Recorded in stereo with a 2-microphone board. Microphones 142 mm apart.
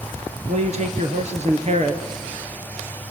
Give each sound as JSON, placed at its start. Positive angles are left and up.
{"t": 0.5, "sound": "a man speaking", "side_deg": -55, "distance_m": 3.0}